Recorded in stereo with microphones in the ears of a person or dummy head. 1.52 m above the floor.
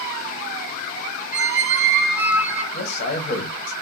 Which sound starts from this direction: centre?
A squeak, at 1.3 s.